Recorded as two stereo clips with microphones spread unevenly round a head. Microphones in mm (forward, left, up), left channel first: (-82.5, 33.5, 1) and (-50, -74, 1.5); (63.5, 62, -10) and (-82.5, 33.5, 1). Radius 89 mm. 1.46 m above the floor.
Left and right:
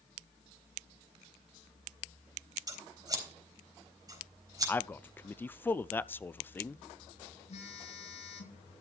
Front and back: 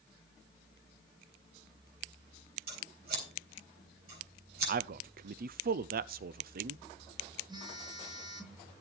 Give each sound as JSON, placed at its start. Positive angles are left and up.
{"t": 2.7, "sound": "scissors", "azimuth_deg": -130, "distance_m": 4.0}
{"t": 4.7, "sound": "a man speaking", "azimuth_deg": 180, "distance_m": 0.5}
{"t": 7.5, "sound": "a phone buzzing", "azimuth_deg": 130, "distance_m": 5.5}